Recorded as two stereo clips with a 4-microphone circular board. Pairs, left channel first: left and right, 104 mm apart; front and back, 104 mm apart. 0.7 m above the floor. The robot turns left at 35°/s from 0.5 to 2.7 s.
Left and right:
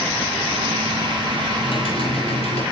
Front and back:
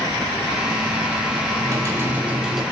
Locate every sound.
1.6 s typing on a keyboard: 130° left, 5.5 m; by 2.6 s 95° left, 5.5 m